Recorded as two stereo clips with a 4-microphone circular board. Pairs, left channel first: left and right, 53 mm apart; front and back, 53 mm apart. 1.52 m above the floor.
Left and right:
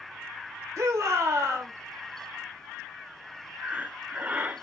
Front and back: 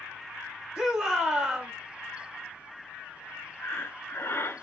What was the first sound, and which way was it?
A shout, 100° right.